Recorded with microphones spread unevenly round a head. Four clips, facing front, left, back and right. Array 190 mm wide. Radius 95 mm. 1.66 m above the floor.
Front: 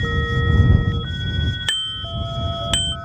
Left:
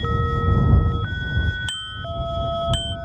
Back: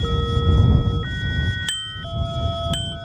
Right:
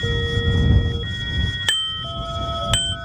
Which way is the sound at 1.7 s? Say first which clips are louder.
Right 2 dB, front 2 dB; 65° right.